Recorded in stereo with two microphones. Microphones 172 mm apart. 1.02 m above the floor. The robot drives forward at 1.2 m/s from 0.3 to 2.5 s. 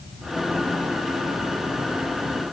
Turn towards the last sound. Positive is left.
No sound to turn to.